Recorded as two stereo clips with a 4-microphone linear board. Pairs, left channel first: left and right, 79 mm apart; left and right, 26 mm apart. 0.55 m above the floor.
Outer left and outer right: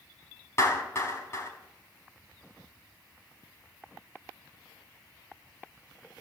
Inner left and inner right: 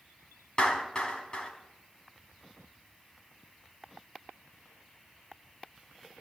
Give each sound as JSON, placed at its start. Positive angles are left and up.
{"t": 0.6, "sound": "a clap", "side_deg": 35, "distance_m": 4.5}